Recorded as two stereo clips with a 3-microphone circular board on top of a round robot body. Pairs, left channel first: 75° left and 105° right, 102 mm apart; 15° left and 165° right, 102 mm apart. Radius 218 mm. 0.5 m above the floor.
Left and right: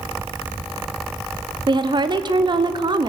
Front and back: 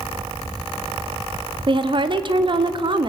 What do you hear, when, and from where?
1.7 s a woman speaking: 140° right, 1.5 m